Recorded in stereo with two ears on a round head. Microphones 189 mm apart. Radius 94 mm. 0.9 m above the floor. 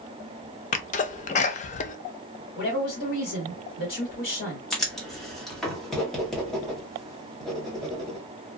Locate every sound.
0.7 s a sneeze: 35° left (ahead or behind), 0.5 m
2.5 s a woman speaking: 45° left (ahead or behind), 1.8 m
4.7 s writing: centre (ahead or behind), 1.1 m